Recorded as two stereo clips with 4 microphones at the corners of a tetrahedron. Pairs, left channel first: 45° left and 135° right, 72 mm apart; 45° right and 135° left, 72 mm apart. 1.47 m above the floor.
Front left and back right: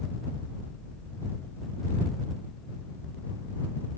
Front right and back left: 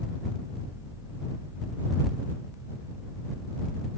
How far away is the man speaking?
No man speaking in this recording.